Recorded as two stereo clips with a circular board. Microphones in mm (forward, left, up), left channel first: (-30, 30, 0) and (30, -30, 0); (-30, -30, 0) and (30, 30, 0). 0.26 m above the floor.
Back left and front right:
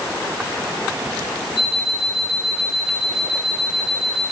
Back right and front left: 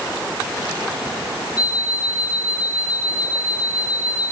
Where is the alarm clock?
120° left, 6.5 m.